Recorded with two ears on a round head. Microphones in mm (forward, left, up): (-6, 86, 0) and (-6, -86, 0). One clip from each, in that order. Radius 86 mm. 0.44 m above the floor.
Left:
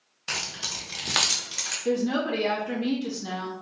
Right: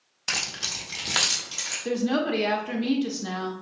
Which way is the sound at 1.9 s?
20° right (ahead or behind).